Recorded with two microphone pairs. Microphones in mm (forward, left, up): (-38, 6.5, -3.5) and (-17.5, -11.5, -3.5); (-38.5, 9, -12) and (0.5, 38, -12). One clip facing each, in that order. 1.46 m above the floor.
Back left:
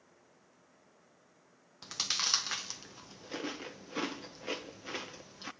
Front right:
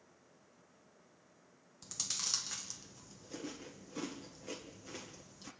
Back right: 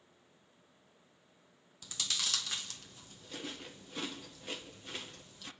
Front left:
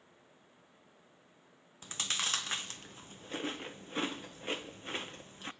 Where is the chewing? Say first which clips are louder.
Back left 8 dB, front left 2 dB; 90° left, 0.9 m.